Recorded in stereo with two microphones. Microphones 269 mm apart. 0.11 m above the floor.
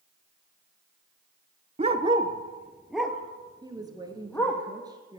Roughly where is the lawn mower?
No lawn mower in this recording.